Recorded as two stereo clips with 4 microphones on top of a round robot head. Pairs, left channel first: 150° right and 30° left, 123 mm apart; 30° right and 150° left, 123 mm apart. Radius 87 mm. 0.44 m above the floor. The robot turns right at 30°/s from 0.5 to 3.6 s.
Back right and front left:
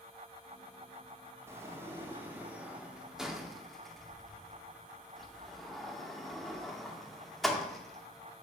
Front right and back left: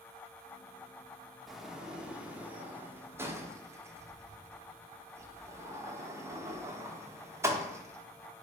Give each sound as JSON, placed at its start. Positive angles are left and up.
{"t": 1.5, "sound": "a sliding door", "azimuth_deg": 60, "distance_m": 0.8}